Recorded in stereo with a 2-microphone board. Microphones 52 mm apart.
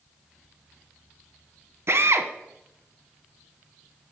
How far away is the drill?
About 0.8 m.